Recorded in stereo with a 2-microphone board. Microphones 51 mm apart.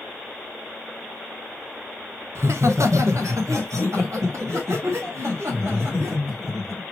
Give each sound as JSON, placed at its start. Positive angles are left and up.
{"t": 2.4, "sound": "laughter", "side_deg": -55, "distance_m": 0.8}